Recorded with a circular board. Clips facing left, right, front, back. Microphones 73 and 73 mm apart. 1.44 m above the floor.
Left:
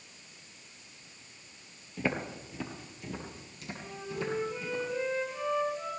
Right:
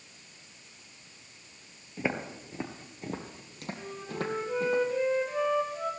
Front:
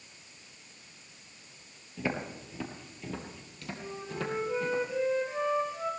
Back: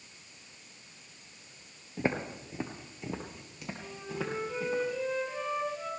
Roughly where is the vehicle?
I don't hear a vehicle.